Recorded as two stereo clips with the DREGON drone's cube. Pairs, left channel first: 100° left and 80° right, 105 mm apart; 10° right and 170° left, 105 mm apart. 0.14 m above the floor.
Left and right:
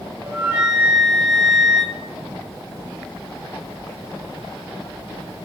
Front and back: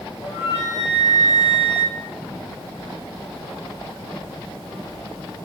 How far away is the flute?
About 3.5 m.